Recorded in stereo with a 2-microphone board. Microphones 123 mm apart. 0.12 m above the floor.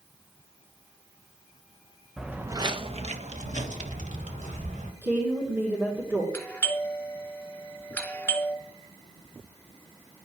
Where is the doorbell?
15° left (ahead or behind), 2 m.